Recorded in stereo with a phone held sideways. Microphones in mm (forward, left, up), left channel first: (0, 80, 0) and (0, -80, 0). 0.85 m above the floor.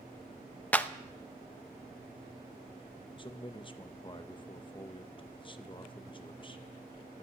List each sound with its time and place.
0.7 s a clap: 10° left (ahead or behind), 0.5 m
3.2 s a man speaking: 30° left (ahead or behind), 0.5 m